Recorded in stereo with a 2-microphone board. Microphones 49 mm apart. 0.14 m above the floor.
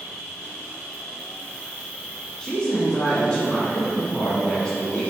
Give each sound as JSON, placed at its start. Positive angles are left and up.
{"t": 0.0, "sound": "an insect", "side_deg": 5, "distance_m": 1.5}
{"t": 2.4, "sound": "a woman speaking", "side_deg": 15, "distance_m": 1.1}